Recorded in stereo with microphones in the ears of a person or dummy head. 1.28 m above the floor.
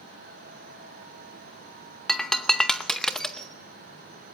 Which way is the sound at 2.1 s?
Centre (ahead or behind).